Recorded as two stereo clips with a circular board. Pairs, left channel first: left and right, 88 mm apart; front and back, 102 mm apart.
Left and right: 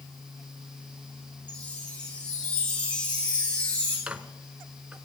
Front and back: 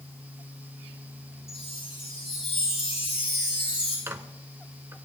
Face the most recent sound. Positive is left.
turn(degrees=-150)